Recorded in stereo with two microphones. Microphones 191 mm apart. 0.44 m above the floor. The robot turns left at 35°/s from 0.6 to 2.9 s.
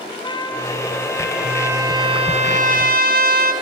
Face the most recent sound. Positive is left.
turn(degrees=-55)